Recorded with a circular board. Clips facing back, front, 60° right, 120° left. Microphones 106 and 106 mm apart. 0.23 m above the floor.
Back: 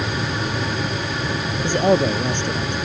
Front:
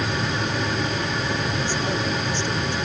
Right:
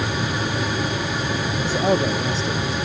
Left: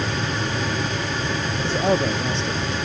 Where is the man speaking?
150° right.